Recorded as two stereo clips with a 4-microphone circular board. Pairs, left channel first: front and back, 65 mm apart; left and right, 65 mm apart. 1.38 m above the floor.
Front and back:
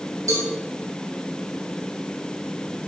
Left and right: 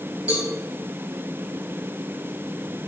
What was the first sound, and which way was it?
A cowbell, 160° right.